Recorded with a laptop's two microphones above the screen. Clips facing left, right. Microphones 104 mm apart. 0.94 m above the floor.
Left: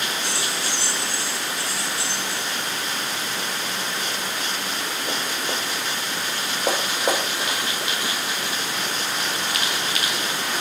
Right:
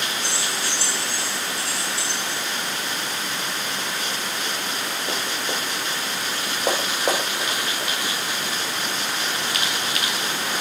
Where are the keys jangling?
45° left (ahead or behind), 8 m.